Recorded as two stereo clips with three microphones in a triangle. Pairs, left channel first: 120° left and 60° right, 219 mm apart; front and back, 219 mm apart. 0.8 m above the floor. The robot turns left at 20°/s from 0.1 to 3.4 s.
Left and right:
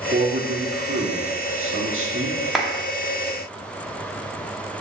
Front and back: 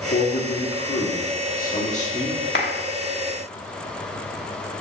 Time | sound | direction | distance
0.1 | a man speaking | 20° right | 1.7 m
2.5 | a clap | 30° left | 1.1 m